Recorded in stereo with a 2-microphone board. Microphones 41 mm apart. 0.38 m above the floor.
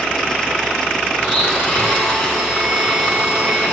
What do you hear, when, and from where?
1.2 s a blender: 10° left (ahead or behind), 4.5 m